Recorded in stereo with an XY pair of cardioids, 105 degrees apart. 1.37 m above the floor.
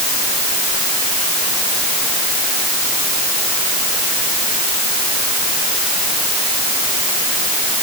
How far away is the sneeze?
No sneeze in this recording.